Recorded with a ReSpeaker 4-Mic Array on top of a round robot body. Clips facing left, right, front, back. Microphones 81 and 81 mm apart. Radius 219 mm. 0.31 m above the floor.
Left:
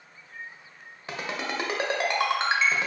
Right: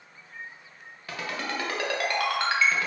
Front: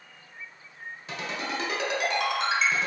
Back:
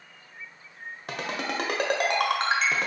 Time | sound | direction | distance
1.1 | a ringtone | 155° left | 0.9 m